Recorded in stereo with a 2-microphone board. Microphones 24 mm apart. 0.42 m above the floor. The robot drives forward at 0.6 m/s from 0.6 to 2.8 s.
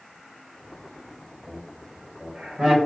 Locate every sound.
1.5 s laughter: 45° right (ahead or behind), 1.8 m; by 2.8 s 35° right (ahead or behind), 2 m